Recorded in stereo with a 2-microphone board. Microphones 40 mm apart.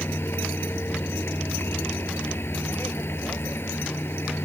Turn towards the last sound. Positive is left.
turn(degrees=65)  # may be behind; listen again after turning